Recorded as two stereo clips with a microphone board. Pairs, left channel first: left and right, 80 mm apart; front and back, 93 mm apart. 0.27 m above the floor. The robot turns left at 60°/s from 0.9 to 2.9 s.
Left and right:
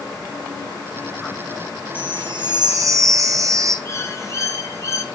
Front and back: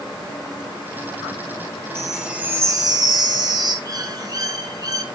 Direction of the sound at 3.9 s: 135° left.